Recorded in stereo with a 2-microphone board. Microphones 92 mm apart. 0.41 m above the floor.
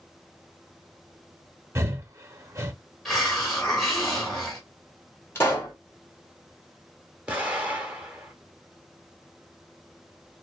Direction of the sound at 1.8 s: 30° right (ahead or behind).